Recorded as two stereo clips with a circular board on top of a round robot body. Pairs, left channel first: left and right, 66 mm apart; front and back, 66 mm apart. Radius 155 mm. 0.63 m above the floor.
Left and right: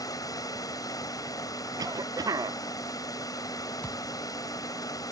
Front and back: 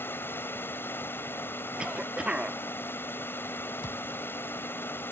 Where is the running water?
60° left.